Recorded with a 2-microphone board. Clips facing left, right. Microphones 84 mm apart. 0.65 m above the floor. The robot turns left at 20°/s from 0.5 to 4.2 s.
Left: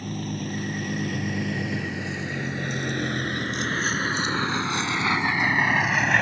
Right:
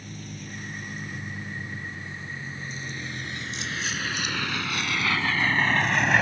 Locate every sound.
0.0 s a vehicle: 60° left (ahead or behind); by 6.2 s 5° right (ahead or behind)